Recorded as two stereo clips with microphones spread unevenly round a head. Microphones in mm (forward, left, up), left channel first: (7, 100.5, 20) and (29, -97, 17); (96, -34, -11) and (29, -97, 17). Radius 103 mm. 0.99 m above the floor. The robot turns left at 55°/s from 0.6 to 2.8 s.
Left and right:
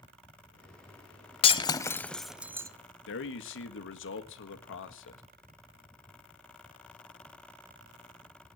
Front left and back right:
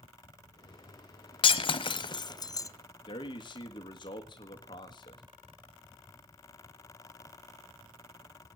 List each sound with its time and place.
1.4 s breaking glass: 55° left, 0.9 m; by 2.7 s 15° right, 0.9 m
3.1 s a man speaking: 75° left, 1.6 m